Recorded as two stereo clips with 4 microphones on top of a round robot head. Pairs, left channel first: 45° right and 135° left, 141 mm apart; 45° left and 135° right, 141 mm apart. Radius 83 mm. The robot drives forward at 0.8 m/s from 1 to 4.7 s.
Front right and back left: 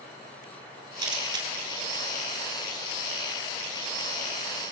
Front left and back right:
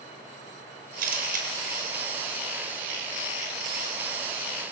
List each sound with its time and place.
1.0 s a camera shutter: 155° right, 5 m; by 1.5 s 160° right, 5 m